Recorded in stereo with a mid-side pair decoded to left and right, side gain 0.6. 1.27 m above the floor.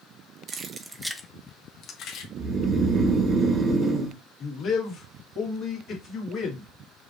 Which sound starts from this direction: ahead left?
A man speaking, at 4.4 s.